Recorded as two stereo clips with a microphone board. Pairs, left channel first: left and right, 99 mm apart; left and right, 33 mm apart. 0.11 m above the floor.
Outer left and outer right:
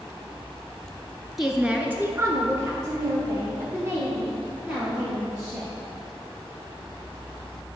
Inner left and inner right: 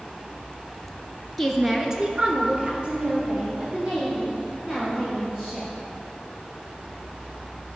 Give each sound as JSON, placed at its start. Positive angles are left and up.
{"t": 1.4, "sound": "a woman speaking", "side_deg": 0, "distance_m": 1.4}